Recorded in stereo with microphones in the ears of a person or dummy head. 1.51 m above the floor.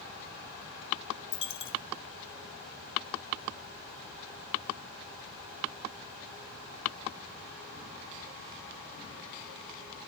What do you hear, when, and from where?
1.3 s a dropped coin: 25° left (ahead or behind), 1.4 m